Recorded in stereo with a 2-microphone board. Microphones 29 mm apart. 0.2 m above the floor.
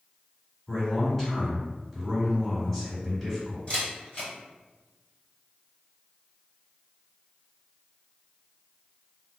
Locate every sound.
0.7 s a man speaking: 10° left (ahead or behind), 1.6 m
3.7 s a camera shutter: 35° left (ahead or behind), 1.9 m